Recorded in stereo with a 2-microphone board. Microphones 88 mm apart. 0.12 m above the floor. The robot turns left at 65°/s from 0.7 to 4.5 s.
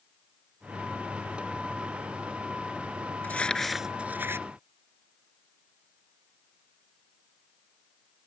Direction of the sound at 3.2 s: 20° left (ahead or behind).